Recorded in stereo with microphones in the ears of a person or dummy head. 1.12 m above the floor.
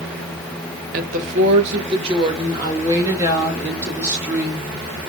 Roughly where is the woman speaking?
Right.